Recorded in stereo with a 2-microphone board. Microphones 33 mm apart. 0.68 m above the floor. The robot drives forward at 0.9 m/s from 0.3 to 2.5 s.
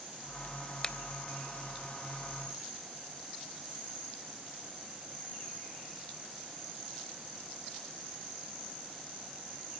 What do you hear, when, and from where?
0.8 s a finger snap: 20° left (ahead or behind), 0.9 m; by 0.9 s 25° left (ahead or behind), 0.8 m